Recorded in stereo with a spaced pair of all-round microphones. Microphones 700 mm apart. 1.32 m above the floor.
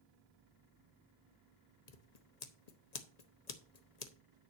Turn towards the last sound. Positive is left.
turn(degrees=65)  # may be behind; listen again after turning